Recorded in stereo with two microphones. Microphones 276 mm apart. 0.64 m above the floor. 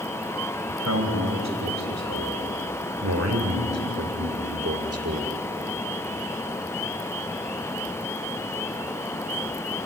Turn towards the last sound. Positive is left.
turn(degrees=-55)  # may be behind; listen again after turning